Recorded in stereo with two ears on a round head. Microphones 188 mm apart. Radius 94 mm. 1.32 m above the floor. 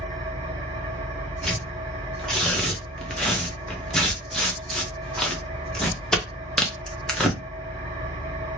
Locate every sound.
0.0 s an engine running: 20° right (ahead or behind), 1.5 m
1.4 s tearing paper: 5° left (ahead or behind), 0.7 m